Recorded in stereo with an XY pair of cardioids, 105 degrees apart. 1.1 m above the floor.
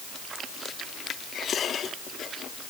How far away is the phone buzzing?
No phone buzzing in this recording.